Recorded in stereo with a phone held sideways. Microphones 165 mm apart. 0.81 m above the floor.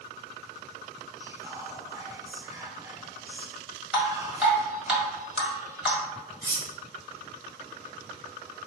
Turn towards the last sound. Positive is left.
turn(degrees=-60)  # may be behind; listen again after turning